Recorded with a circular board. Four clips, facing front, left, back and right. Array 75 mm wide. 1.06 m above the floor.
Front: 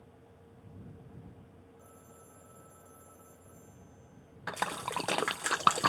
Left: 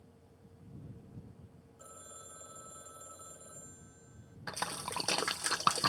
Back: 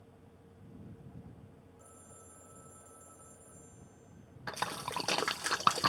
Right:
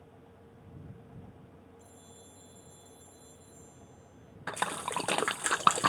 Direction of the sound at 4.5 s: 65° right.